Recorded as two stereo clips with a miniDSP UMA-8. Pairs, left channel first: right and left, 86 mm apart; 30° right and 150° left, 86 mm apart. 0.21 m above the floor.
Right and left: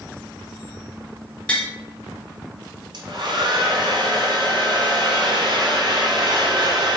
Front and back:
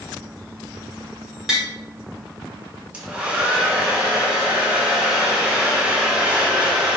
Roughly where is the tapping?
Behind right.